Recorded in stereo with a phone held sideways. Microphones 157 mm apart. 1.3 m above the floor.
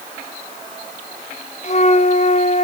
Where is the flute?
45° left (ahead or behind), 0.7 m.